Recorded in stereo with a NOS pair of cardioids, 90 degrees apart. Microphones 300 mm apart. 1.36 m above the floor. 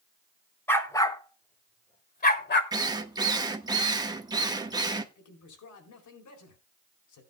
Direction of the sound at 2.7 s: 15° right.